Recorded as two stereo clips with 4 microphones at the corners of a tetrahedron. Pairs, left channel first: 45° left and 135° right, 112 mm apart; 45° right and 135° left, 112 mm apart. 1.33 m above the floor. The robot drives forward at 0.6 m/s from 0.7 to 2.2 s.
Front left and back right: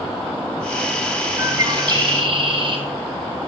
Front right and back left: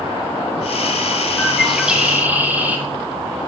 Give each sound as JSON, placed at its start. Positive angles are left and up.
{"t": 1.4, "sound": "a bird", "azimuth_deg": -105, "distance_m": 0.6}